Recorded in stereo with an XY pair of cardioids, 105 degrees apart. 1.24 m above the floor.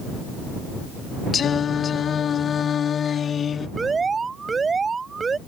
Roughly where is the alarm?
Ahead right.